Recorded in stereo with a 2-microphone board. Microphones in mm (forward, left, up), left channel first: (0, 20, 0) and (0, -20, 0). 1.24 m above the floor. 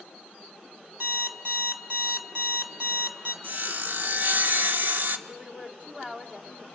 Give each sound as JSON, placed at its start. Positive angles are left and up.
{"t": 1.0, "sound": "an alarm clock", "side_deg": -55, "distance_m": 2.0}
{"t": 3.4, "sound": "sawing", "side_deg": -60, "distance_m": 1.3}
{"t": 5.3, "sound": "a woman speaking", "side_deg": -30, "distance_m": 3.5}